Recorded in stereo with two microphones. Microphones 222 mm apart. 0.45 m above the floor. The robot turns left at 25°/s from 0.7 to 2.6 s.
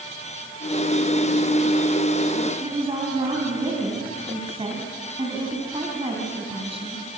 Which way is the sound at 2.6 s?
25° right (ahead or behind).